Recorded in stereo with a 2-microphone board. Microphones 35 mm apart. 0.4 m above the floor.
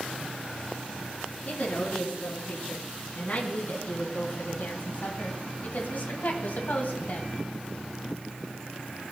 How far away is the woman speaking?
About 4 m.